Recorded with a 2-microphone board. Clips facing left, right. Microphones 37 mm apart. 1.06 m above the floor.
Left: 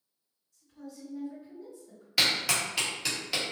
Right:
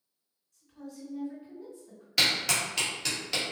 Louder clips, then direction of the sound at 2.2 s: Even; 5° left (ahead or behind).